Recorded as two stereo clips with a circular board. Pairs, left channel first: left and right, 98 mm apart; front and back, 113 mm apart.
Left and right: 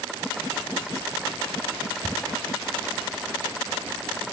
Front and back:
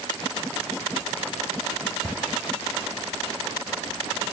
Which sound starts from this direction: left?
Ticking, at 2.0 s.